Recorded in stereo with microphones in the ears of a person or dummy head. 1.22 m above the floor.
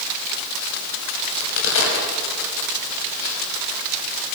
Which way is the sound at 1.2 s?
70° left (ahead or behind).